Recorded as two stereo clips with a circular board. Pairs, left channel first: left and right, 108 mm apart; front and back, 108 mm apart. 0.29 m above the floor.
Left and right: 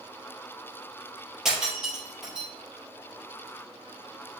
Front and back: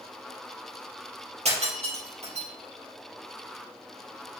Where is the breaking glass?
175° right, 4 m.